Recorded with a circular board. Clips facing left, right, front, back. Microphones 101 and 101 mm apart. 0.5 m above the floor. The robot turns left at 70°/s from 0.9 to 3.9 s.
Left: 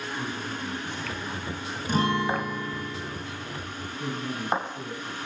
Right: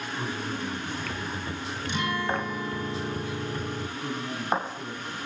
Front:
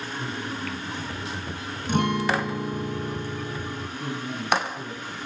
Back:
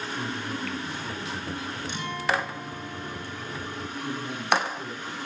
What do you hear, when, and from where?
0.1 s a man speaking: 160° right, 6 m; by 1.8 s 135° left, 6 m
1.9 s a guitar: 40° left, 1.0 m; by 3.9 s 95° right, 1.0 m
4.0 s a man speaking: 60° left, 4.5 m